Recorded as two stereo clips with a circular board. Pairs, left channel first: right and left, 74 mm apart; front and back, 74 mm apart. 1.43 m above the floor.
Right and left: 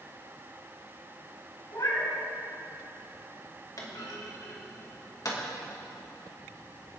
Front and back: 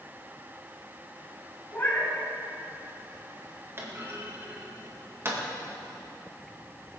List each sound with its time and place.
1.7 s a cat meowing: 65° right, 4 m
3.8 s a clunk: 125° right, 2.5 m